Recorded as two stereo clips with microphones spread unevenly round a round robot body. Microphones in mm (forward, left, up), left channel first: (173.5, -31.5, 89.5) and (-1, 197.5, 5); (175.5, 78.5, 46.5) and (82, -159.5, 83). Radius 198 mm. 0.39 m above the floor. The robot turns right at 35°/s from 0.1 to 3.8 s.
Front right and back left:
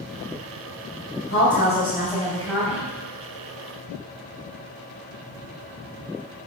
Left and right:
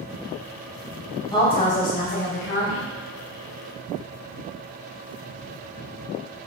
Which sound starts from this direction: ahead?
A woman speaking, at 1.3 s.